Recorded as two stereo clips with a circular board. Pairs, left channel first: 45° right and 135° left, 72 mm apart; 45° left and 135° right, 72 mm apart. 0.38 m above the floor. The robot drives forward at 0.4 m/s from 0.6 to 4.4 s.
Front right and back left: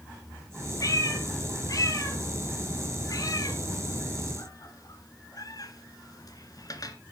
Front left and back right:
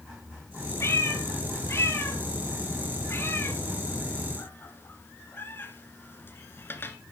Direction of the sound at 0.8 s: 5° right.